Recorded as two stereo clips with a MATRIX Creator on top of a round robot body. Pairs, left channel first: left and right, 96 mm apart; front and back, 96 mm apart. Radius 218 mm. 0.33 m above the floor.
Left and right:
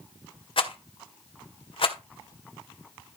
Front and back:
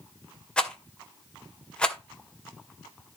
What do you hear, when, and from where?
0.6 s a rattle: 80° left, 2.5 m